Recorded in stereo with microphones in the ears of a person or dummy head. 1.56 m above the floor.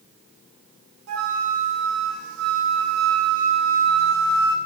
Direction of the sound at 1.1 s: 80° right.